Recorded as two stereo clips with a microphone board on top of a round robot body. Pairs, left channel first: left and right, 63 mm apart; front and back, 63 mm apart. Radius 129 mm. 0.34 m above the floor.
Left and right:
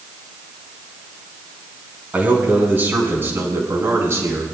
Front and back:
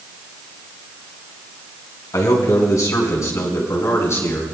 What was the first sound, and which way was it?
A man speaking, 25° right.